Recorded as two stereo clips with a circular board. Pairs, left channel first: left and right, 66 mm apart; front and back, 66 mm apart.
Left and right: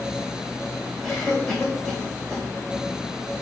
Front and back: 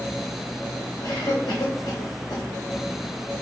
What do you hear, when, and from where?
1.0 s a cough: 10° left, 3 m